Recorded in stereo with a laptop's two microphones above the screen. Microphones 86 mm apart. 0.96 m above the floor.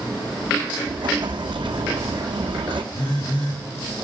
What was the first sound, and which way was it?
An explosion, 70° right (ahead or behind).